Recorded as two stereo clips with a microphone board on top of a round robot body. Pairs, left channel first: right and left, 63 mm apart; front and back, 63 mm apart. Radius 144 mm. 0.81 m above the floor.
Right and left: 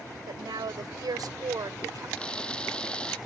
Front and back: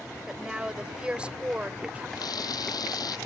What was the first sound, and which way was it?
A woman speaking, 100° left.